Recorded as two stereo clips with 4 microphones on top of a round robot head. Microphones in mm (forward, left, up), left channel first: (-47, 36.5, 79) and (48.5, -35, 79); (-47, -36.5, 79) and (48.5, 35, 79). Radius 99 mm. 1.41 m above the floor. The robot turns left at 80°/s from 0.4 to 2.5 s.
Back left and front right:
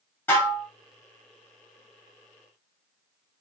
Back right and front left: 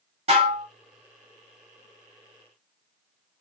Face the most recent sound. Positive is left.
turn(degrees=-95)